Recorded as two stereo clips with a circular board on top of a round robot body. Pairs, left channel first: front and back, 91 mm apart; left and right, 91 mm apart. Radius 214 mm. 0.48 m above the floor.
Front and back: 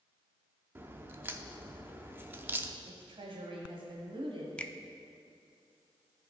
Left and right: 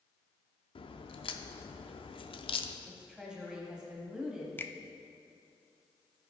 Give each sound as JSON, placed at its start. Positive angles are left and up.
{"t": 0.8, "sound": "a crack", "azimuth_deg": 110, "distance_m": 0.6}
{"t": 2.9, "sound": "a woman speaking", "azimuth_deg": -170, "distance_m": 1.4}
{"t": 4.6, "sound": "a finger snap", "azimuth_deg": 60, "distance_m": 0.7}